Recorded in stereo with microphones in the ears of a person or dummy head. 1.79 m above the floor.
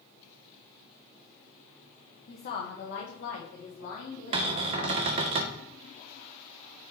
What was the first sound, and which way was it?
A woman speaking, 45° left (ahead or behind).